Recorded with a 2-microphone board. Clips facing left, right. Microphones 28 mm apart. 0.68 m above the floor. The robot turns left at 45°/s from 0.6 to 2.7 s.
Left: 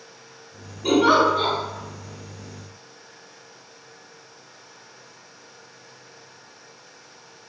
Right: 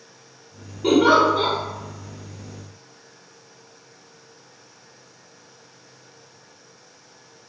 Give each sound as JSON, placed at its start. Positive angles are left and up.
{"t": 0.8, "sound": "a giggle", "azimuth_deg": -80, "distance_m": 1.4}